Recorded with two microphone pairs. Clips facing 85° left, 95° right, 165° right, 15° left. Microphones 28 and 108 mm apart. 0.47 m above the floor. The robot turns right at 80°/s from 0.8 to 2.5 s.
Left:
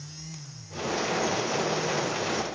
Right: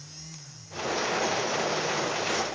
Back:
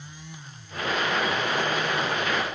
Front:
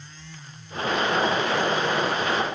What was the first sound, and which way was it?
Only background noise.